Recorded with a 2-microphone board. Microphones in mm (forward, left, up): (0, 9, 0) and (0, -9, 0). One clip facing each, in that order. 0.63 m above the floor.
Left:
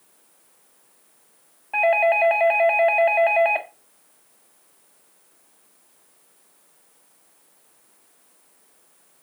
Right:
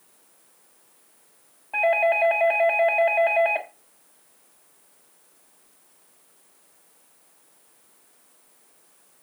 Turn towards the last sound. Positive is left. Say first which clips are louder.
# left 2 dB
turn(degrees=20)  # may be behind; listen again after turning